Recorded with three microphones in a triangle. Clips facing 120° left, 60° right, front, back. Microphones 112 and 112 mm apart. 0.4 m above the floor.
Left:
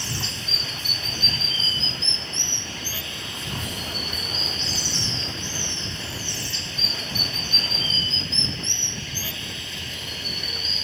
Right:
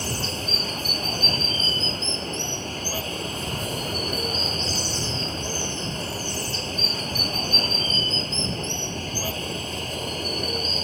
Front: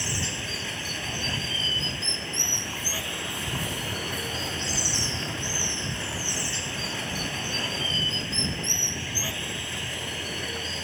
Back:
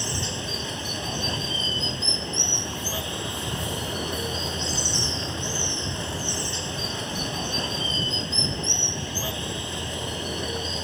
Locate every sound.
0.0 s running water: 110° right